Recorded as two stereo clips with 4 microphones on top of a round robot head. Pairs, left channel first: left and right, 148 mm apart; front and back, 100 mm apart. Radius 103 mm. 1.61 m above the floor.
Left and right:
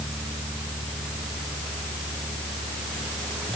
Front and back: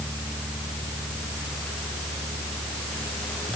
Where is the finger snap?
I don't hear a finger snap.